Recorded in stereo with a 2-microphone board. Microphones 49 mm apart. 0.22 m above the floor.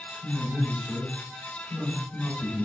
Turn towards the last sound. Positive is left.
turn(degrees=25)  # may be behind; listen again after turning